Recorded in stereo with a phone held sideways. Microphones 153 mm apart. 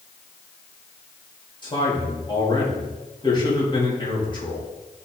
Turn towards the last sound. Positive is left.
turn(degrees=30)  # may be behind; listen again after turning